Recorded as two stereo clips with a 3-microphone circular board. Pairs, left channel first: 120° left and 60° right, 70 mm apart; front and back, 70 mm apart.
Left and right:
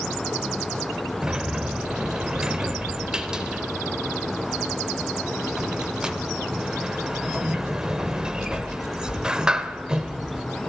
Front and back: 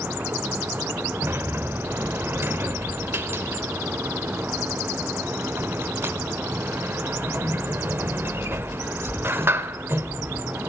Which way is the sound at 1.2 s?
135° right.